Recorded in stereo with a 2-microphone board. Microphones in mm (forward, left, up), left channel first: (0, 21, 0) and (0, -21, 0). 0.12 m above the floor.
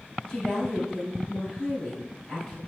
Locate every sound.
0.3 s a woman speaking: 25° left (ahead or behind), 1.9 m